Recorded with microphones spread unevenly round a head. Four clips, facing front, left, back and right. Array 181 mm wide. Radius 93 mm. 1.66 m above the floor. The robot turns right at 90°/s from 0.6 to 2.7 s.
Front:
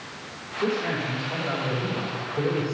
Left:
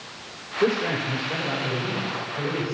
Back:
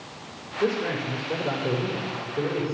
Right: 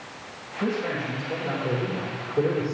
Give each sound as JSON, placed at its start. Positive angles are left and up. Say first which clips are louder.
{"t": 0.6, "sound": "a man speaking", "louder": "left 4 dB, back 1 dB", "azimuth_deg": 100, "distance_m": 4.5}